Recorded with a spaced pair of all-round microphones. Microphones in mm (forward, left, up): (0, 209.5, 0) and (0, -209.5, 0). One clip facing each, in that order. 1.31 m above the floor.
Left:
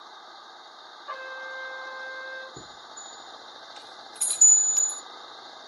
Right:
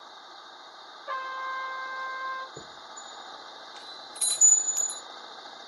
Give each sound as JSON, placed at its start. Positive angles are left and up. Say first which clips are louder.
{"t": 1.1, "sound": "a trumpet", "louder": "even", "side_deg": -80, "distance_m": 1.5}
{"t": 2.6, "sound": "a chime", "louder": "even", "side_deg": 25, "distance_m": 0.6}